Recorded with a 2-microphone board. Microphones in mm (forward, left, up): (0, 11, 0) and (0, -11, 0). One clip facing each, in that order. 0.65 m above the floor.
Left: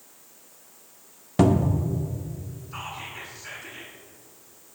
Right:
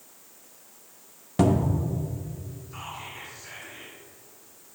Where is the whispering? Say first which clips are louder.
Left 3 dB; 35° left (ahead or behind), 1.5 m.